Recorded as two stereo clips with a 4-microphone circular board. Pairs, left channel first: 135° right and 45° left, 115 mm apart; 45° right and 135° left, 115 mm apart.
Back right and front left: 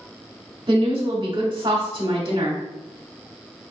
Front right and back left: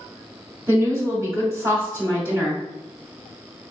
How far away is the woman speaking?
About 0.9 m.